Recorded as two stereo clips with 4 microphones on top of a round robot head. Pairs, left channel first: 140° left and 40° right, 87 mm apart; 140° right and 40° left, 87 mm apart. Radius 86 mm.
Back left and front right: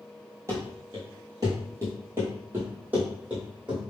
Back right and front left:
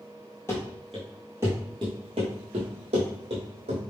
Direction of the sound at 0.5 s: 85° right.